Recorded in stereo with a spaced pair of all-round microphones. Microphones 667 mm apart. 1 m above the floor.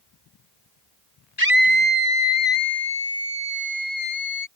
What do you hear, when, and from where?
1.4 s a scream: 80° left